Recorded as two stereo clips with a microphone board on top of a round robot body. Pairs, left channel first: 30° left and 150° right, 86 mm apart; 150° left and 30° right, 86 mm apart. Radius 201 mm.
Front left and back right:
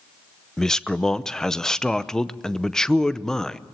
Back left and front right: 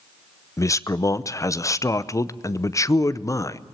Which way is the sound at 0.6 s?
110° left.